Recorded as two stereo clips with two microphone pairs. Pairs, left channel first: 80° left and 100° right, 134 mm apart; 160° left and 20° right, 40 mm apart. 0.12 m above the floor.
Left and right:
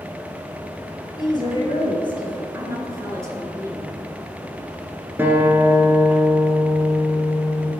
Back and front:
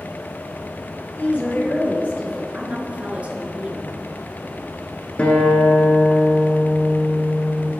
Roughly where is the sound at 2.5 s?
Ahead right.